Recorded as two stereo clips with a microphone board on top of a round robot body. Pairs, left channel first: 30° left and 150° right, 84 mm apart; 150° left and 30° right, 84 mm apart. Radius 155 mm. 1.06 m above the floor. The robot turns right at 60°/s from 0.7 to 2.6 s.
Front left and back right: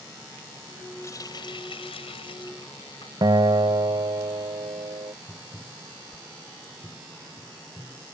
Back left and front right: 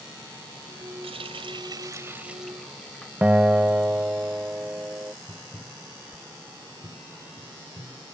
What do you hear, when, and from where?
1.0 s a running tap: 25° right; by 3.1 s 65° left
3.2 s a guitar: 105° right
5.3 s tapping: 85° right